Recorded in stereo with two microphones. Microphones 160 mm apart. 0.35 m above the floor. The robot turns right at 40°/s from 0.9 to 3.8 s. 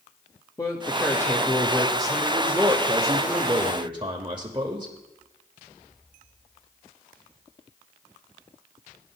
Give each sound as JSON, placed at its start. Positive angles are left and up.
{"t": 0.6, "sound": "a man speaking", "azimuth_deg": 140, "distance_m": 0.9}